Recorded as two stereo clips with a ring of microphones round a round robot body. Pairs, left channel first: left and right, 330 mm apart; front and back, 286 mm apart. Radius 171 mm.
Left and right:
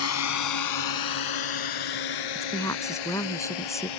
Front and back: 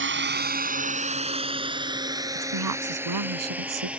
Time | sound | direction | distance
0.0 | a drone | 135° left | ?
2.4 | a woman speaking | 170° left | ?